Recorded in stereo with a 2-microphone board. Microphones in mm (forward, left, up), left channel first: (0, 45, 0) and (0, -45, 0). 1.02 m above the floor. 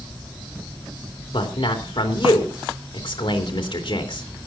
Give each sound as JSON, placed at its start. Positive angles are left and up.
{"t": 1.3, "sound": "a man speaking", "side_deg": 70, "distance_m": 3.0}